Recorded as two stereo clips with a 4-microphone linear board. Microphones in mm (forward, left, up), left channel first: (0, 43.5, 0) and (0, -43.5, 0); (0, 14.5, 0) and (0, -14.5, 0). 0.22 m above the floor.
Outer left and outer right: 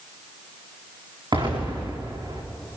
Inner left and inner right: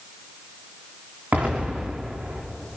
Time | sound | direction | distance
1.3 | an explosion | 55° right (ahead or behind) | 6.5 m